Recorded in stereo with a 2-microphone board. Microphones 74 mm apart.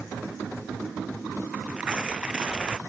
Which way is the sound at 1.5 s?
15° right (ahead or behind).